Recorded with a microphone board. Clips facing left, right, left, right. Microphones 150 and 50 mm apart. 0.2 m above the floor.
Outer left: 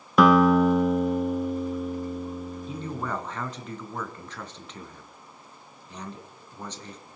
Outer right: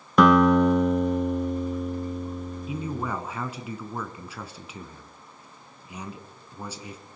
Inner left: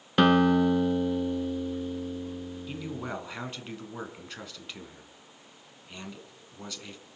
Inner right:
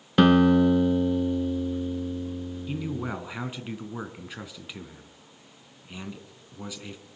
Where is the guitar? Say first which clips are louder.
Even, inner right 3 dB; centre (ahead or behind), 0.9 m.